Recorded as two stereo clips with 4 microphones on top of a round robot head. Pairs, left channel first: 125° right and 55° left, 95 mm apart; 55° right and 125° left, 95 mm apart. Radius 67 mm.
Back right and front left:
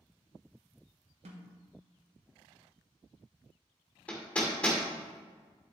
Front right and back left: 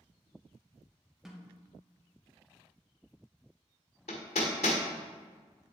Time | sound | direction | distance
1.2 | a snare drum | 40° left | 1.7 m
4.1 | hammering | 50° right | 1.5 m